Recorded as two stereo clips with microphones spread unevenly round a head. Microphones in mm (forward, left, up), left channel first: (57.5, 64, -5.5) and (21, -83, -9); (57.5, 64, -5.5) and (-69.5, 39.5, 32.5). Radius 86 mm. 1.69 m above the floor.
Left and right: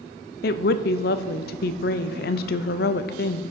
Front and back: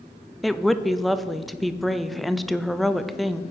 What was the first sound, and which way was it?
A woman speaking, 105° left.